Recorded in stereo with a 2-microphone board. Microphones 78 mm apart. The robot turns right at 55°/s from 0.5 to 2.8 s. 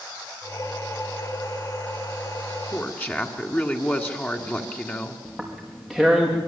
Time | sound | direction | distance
2.7 | a woman speaking | 20° left (ahead or behind) | 1.8 m
5.2 | tearing paper | 5° left (ahead or behind) | 5.5 m